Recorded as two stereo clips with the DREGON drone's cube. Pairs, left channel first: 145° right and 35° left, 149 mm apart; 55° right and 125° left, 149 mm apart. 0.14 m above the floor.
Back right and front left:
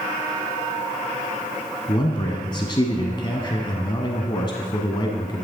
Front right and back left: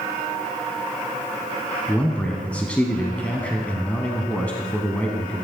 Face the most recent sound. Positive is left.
turn(degrees=-130)